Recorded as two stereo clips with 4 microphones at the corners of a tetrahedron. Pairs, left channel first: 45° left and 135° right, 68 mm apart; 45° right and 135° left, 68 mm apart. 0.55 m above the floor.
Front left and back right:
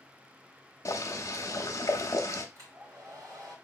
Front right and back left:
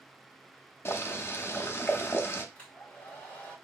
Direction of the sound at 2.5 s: 110° right.